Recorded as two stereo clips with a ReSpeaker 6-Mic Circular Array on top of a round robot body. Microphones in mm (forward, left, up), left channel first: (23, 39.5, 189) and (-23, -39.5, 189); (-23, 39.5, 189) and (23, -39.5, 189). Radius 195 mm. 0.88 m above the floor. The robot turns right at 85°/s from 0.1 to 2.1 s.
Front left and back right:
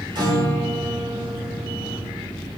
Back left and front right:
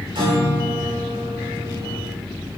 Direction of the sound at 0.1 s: 90° right.